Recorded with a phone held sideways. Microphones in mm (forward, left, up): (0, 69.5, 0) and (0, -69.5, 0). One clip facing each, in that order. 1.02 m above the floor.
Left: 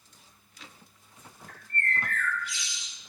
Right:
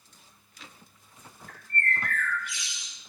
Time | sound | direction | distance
1.5 | a bird | 60° right (ahead or behind) | 3.5 m